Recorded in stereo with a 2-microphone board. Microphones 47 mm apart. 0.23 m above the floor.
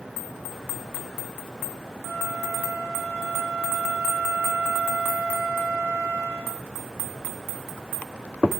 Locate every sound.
2.0 s a flute: 75° right (ahead or behind), 5.5 m